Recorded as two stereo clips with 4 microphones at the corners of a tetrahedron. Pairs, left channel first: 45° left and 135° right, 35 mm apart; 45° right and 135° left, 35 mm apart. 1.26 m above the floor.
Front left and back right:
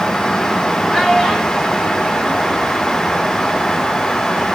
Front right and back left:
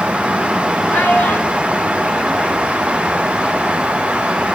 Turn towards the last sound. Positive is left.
turn(degrees=5)